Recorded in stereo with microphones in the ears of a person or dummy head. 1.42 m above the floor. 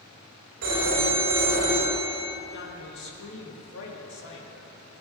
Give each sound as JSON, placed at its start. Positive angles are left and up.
{"t": 0.6, "sound": "a phone ringing", "side_deg": -70, "distance_m": 4.0}
{"t": 2.5, "sound": "a man speaking", "side_deg": 65, "distance_m": 2.5}